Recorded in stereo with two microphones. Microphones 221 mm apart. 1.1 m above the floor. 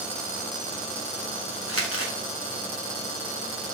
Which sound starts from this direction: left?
Crumpling, at 1.7 s.